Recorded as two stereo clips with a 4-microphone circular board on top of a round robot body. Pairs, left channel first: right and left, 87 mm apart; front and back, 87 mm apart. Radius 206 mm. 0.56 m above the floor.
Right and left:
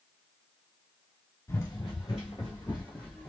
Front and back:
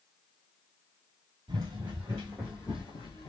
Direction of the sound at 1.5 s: 145° right.